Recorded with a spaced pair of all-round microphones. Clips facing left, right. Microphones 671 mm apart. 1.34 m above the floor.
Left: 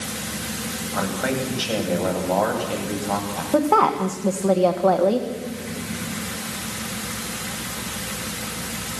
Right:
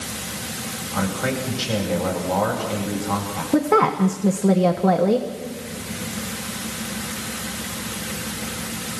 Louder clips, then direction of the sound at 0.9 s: Even; 30° right (ahead or behind).